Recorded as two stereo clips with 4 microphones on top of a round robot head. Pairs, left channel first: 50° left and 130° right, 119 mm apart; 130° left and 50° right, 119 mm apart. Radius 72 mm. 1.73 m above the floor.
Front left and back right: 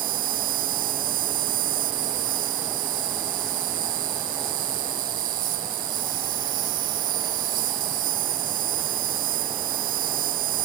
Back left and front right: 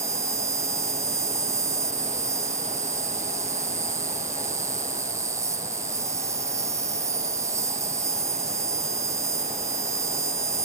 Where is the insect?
115° right.